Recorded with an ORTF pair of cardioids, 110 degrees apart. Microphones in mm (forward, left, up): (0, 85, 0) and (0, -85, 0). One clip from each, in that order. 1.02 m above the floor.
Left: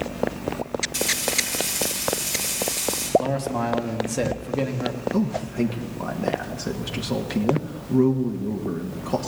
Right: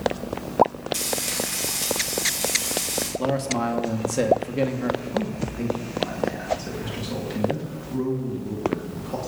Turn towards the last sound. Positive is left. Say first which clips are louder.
# left 2 dB
turn(degrees=35)